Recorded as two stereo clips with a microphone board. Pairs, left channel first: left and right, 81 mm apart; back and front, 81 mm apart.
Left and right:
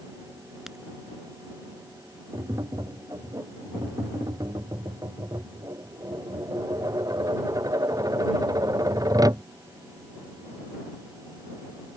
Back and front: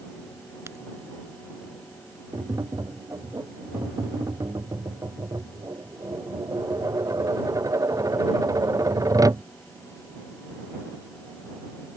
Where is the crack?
5° right.